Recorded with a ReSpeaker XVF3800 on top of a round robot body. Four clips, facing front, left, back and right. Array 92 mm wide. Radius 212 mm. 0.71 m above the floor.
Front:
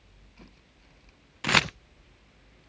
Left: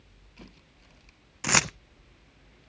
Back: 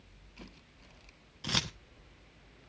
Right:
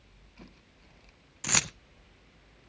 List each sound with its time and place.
1.4 s keys jangling: 30° left, 0.5 m